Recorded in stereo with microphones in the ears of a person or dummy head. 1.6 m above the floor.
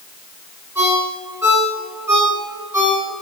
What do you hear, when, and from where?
0.8 s a ringtone: 20° right (ahead or behind), 8.5 m